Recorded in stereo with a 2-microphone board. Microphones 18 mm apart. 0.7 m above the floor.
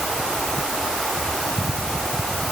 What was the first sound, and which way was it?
Only background noise.